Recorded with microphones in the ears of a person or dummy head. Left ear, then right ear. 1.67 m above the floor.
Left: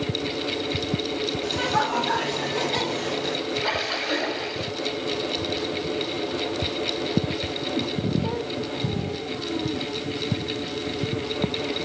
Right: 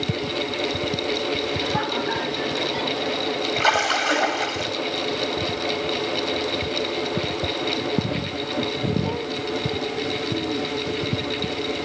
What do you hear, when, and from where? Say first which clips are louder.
1.4 s laughter: left 1 dB; 90° left, 3.5 m; by 3.4 s 80° left, 2.5 m
3.6 s a splash: right 8 dB; 50° right (ahead or behind), 2 m